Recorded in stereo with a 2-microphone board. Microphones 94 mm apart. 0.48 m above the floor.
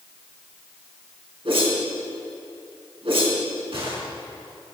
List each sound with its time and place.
1.4 s a whoosh: 70° right (ahead or behind), 3.5 m